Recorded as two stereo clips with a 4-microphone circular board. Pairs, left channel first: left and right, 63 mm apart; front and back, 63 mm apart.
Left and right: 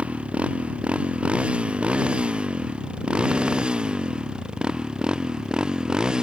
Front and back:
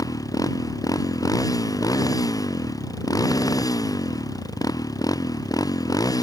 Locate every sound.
0.0 s a motorcycle: 15° right; by 6.2 s 10° right